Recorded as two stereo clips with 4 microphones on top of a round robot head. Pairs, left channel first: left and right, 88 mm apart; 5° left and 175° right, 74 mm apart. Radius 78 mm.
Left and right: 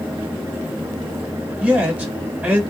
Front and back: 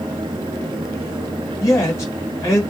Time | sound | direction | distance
1.6 | a man speaking | 20° right | 1.5 m